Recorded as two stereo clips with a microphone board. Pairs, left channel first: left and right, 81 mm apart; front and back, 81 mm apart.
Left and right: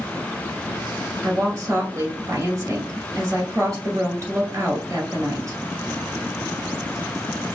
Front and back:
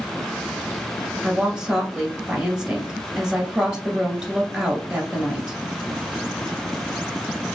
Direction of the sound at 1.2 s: 105° right.